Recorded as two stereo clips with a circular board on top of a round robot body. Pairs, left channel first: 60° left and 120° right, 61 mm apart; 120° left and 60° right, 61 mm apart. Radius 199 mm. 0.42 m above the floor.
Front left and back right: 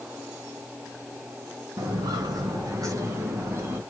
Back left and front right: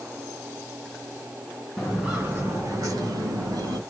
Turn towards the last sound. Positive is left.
turn(degrees=-65)